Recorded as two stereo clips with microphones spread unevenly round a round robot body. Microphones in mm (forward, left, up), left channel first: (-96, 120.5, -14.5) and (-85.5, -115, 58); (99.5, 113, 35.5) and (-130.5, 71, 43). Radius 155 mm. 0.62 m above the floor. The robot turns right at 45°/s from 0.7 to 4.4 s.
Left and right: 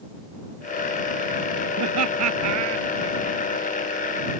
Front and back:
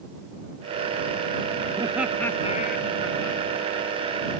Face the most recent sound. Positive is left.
turn(degrees=25)